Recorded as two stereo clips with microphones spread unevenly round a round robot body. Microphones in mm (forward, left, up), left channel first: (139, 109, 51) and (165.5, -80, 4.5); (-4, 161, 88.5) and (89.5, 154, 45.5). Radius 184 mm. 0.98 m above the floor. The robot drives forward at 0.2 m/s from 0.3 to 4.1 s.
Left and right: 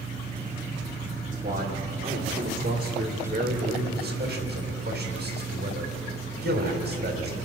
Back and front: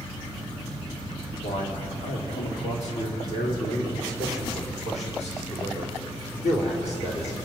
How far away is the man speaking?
About 3 m.